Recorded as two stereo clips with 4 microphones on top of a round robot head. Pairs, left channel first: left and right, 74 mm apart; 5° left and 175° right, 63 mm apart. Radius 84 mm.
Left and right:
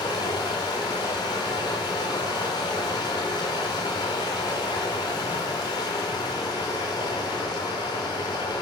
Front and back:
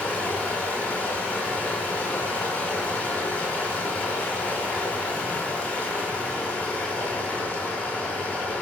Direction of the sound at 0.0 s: 70° left.